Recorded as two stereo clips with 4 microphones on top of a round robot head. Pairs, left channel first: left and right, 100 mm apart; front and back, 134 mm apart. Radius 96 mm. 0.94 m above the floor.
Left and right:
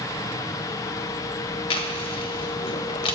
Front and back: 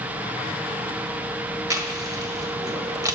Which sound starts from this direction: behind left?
Chewing, at 1.7 s.